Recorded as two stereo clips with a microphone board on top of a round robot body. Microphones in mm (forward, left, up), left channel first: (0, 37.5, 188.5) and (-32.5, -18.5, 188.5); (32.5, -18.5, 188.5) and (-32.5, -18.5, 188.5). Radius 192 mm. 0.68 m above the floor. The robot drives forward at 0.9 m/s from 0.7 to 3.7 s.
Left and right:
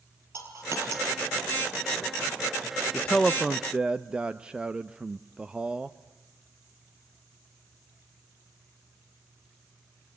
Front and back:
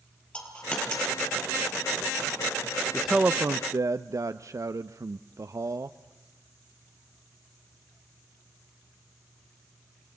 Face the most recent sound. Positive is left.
turn(degrees=165)